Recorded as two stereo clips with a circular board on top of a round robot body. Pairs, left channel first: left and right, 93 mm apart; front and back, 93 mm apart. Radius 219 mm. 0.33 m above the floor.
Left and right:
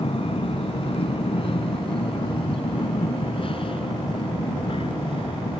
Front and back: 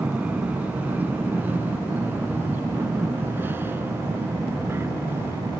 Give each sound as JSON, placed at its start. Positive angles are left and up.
{"t": 0.0, "sound": "an aircraft", "azimuth_deg": 105}